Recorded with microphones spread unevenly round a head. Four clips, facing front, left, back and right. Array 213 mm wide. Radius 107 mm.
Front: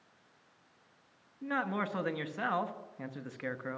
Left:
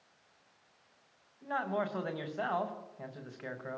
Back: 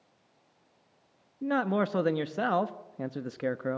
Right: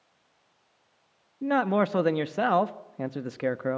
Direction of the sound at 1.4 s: 110° right.